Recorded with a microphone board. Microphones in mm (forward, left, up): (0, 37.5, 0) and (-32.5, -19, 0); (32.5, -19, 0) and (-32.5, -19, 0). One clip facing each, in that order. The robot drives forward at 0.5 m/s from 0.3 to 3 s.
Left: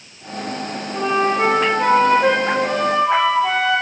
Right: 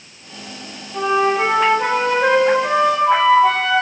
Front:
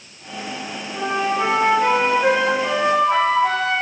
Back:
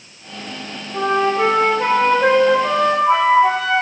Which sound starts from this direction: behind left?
A flute, at 0.9 s.